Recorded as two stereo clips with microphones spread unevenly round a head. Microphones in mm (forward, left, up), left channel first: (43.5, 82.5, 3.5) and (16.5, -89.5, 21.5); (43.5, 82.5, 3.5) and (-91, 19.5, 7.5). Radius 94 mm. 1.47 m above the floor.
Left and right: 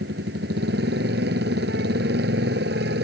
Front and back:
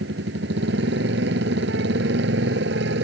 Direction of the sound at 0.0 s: 140° right.